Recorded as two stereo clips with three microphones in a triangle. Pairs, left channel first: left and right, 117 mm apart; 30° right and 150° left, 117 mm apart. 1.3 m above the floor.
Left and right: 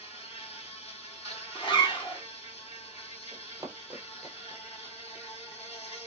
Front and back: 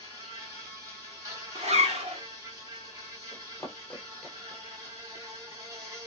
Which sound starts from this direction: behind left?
A zipper, at 1.6 s.